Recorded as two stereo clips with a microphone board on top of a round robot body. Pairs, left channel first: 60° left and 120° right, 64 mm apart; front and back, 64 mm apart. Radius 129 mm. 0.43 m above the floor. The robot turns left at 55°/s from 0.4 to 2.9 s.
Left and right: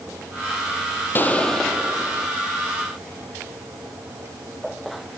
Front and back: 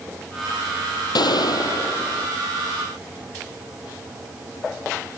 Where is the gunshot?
Straight ahead; by 2.3 s 65° right.